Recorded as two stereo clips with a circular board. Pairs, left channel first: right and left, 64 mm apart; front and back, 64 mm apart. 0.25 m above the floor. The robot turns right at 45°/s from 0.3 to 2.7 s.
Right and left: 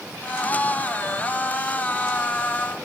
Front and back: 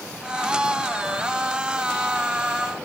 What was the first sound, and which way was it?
Only background noise.